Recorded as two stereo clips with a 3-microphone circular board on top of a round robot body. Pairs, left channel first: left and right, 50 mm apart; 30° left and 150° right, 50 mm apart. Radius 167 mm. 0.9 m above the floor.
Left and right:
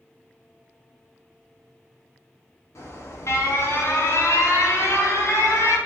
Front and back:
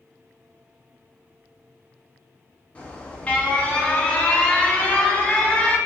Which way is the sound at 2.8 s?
95° left.